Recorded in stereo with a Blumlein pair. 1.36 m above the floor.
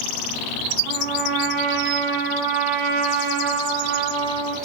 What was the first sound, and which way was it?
A trumpet, 40° right.